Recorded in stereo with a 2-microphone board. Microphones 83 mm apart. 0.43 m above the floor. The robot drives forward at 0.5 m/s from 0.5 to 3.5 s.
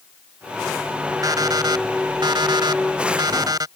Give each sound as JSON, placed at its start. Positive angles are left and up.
{"t": 1.2, "sound": "an alarm clock", "side_deg": -50}